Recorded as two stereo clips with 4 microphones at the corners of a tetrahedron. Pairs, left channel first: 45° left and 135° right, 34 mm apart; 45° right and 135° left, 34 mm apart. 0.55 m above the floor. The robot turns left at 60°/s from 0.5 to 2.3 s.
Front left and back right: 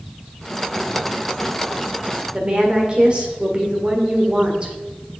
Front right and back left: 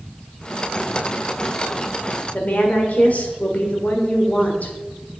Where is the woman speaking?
80° right, 1.8 m.